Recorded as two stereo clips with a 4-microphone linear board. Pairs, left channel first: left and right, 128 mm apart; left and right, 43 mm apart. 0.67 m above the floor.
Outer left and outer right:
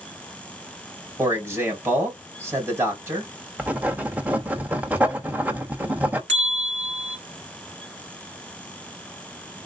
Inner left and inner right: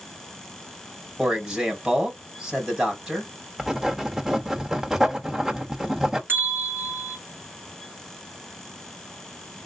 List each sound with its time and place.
1.2 s a man speaking: 20° right (ahead or behind), 2.5 m
3.6 s writing: 10° right (ahead or behind), 0.9 m
6.3 s a bell: 60° right (ahead or behind), 3 m